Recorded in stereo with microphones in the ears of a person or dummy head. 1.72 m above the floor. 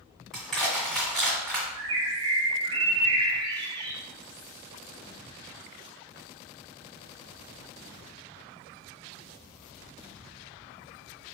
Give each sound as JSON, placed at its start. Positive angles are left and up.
{"t": 0.3, "sound": "crushing", "side_deg": 0, "distance_m": 2.0}
{"t": 1.8, "sound": "a bird", "side_deg": -30, "distance_m": 0.8}